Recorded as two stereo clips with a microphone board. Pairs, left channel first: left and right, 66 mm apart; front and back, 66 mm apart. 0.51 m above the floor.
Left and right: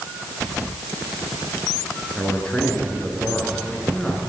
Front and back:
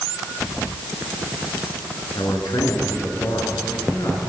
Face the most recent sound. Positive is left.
turn(degrees=15)